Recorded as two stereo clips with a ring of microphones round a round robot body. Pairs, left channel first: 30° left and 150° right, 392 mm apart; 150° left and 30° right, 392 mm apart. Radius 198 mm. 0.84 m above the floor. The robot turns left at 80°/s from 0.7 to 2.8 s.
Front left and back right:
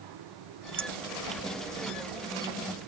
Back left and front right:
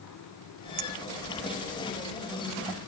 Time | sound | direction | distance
0.8 | a clink | 70° right | ?